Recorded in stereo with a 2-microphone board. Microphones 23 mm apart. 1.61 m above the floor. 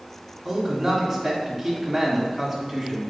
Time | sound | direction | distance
0.5 | a man speaking | 5° right (ahead or behind) | 3 m